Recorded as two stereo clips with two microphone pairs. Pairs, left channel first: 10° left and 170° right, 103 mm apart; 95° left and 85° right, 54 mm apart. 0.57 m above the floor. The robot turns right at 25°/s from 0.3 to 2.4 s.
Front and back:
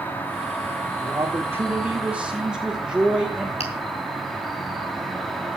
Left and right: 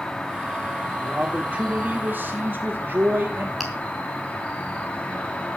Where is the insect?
40° left, 2.0 m; by 5.6 s 90° left, 2.0 m.